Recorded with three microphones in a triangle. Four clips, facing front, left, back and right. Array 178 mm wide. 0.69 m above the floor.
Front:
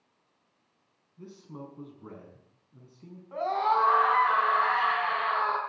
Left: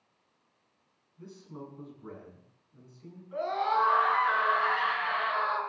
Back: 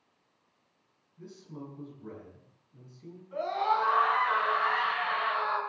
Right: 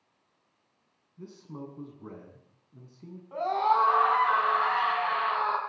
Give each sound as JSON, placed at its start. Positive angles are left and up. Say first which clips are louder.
{"t": 1.2, "sound": "a man speaking", "louder": "right 3 dB, front 1 dB", "azimuth_deg": -70, "distance_m": 6.0}
{"t": 3.3, "sound": "a scream", "louder": "right 4 dB, front 3 dB", "azimuth_deg": -60, "distance_m": 7.5}